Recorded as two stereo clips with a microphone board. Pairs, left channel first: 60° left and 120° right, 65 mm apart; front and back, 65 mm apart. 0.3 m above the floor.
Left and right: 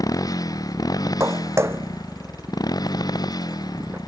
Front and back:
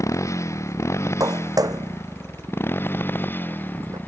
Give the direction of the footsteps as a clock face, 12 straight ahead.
5 o'clock.